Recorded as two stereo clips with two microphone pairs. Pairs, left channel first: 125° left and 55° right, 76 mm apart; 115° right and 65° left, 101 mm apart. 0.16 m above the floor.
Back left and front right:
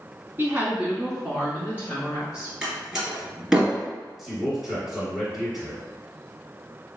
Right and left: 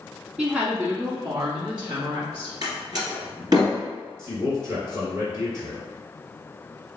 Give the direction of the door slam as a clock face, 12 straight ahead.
11 o'clock.